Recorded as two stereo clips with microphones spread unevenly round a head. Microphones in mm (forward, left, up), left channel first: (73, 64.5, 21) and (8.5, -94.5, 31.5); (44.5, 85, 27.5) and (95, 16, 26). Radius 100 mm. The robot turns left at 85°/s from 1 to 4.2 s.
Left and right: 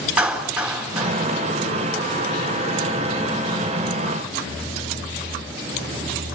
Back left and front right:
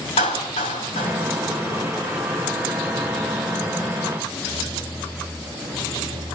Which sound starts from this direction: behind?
A clap, at 0.2 s.